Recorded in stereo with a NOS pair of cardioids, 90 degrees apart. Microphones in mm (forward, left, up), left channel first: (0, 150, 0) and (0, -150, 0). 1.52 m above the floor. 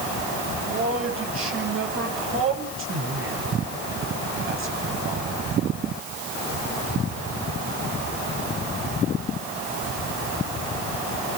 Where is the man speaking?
45° right, 10 m.